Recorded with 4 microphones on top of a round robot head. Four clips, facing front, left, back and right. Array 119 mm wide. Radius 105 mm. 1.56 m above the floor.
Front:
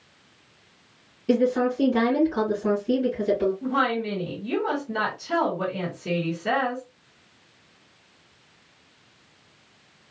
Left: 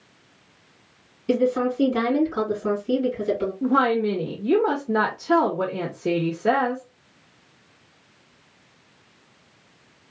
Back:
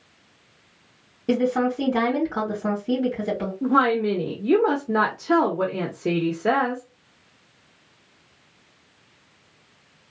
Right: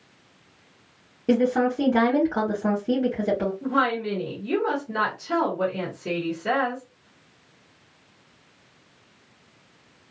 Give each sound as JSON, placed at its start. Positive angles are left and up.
{"t": 1.3, "sound": "a woman speaking", "azimuth_deg": -125, "distance_m": 2.5}
{"t": 3.6, "sound": "a woman speaking", "azimuth_deg": 140, "distance_m": 0.8}